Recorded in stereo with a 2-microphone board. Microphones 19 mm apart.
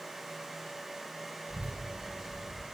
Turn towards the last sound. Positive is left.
turn(degrees=-90)